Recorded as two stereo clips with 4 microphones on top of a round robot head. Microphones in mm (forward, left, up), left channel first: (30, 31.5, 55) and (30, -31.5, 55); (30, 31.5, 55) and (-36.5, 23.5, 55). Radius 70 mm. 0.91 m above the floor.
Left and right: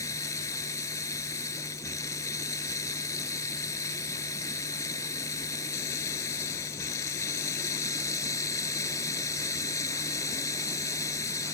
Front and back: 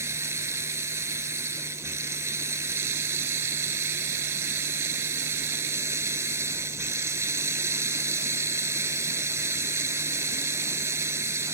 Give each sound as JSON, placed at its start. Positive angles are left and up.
{"t": 0.0, "sound": "running water", "azimuth_deg": 140}